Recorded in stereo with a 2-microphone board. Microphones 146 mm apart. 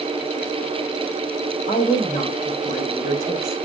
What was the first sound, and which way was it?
A woman speaking, 60° left (ahead or behind).